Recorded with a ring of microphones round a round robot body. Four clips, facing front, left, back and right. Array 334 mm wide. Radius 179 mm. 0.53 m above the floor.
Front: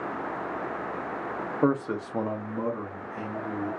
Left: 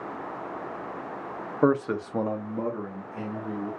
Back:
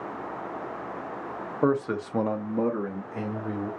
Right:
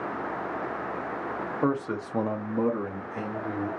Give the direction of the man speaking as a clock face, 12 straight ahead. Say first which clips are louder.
Left 5 dB, back 1 dB; 9 o'clock.